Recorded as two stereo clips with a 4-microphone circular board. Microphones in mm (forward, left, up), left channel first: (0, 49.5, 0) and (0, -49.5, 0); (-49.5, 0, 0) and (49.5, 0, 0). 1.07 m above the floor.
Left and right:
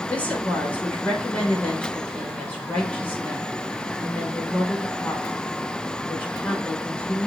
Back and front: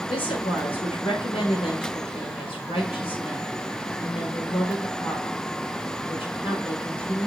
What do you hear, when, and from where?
0.1 s a woman speaking: 165° left, 4 m